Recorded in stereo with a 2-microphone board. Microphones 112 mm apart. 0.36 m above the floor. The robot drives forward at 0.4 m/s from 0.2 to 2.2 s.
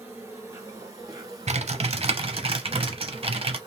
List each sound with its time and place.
0.0 s an insect: 25° right (ahead or behind), 1.7 m; by 3.7 s 45° right (ahead or behind), 1.1 m
1.5 s typing on a keyboard: 80° right, 0.6 m; by 3.6 s 60° right (ahead or behind), 0.7 m